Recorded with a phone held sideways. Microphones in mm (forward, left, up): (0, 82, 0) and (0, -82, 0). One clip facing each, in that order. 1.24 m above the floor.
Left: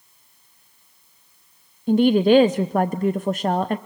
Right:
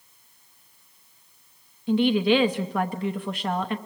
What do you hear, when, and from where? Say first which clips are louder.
1.9 s a woman speaking: left 5 dB; 45° left (ahead or behind), 0.6 m